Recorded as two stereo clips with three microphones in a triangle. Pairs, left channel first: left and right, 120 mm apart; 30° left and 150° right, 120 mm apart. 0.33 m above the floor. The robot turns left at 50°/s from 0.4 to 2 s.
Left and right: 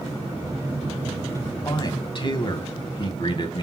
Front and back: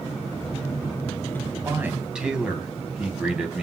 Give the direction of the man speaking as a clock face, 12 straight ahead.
7 o'clock.